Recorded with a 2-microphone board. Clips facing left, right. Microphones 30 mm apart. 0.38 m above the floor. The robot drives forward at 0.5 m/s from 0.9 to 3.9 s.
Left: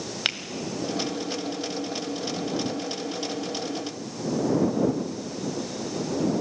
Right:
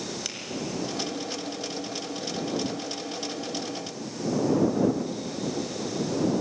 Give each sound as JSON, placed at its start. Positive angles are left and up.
{"t": 0.2, "sound": "a finger snap", "side_deg": 60, "distance_m": 1.4}